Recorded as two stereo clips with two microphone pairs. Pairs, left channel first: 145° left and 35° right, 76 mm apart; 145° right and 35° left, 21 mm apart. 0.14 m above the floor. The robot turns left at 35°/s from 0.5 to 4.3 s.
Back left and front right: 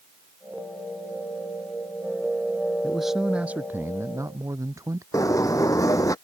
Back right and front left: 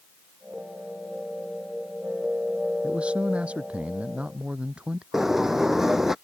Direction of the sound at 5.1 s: 105° left.